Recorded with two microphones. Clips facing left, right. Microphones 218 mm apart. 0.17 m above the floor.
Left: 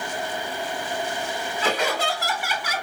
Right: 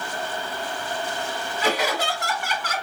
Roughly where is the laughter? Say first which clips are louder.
Right 1 dB; centre.